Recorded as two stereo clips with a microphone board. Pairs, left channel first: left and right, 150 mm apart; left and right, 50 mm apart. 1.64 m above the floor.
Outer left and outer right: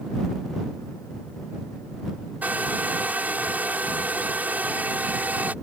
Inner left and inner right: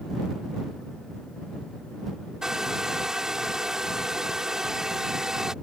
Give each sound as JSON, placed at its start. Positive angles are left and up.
{"t": 2.4, "sound": "a hair dryer", "side_deg": -10}